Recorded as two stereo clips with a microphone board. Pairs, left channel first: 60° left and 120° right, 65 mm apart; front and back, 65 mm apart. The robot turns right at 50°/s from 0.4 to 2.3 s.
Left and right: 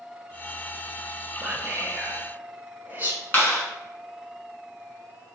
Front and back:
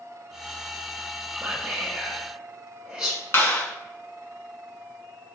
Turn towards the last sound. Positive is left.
turn(degrees=15)